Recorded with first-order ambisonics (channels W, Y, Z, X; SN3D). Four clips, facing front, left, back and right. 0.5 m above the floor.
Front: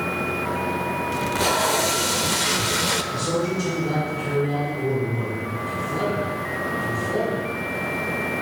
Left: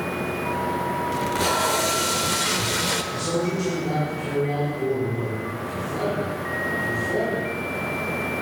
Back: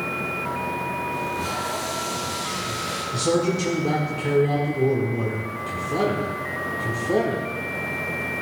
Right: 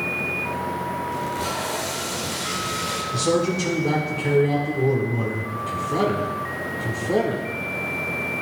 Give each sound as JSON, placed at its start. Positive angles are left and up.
{"t": 1.1, "sound": "tape being pulled", "azimuth_deg": 30, "distance_m": 0.7}
{"t": 3.1, "sound": "a man speaking", "azimuth_deg": -135, "distance_m": 1.5}